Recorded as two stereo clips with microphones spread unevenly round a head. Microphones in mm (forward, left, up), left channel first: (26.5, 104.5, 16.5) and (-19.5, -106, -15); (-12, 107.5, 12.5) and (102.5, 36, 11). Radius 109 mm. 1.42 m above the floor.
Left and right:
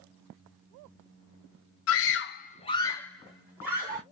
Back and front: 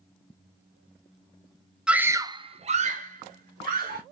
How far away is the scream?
About 0.7 m.